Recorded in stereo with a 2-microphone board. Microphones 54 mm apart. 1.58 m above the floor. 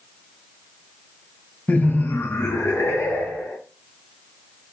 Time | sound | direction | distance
1.7 | laughter | 35° left (ahead or behind) | 0.6 m